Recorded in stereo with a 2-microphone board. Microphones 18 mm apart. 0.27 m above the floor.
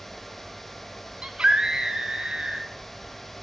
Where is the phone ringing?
No phone ringing in this recording.